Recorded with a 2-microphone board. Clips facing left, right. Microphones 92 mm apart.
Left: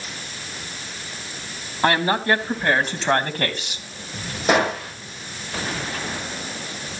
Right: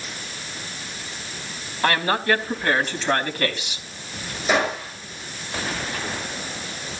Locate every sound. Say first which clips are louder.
1.8 s a woman speaking: left 2 dB; 25° left (ahead or behind), 3.5 m; by 3.8 s 45° left (ahead or behind), 3.5 m
4.5 s a gunshot: left 2 dB; 65° left (ahead or behind), 10 m